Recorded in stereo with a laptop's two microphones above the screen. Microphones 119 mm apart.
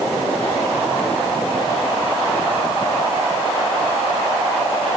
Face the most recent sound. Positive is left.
No sound to turn to.